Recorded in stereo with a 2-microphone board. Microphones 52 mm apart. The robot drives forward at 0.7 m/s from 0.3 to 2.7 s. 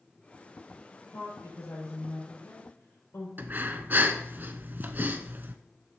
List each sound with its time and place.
1.1 s a woman speaking: 60° left (ahead or behind), 4.5 m; by 3.3 s 50° left (ahead or behind), 5 m
3.4 s breathing: 40° right (ahead or behind), 0.7 m